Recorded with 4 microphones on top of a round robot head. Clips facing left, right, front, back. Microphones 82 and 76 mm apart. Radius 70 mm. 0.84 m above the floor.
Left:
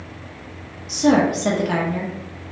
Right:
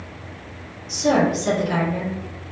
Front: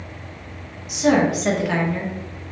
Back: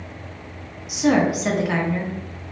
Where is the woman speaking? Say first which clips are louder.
Left 2 dB, front 1 dB; 95° left, 0.8 m.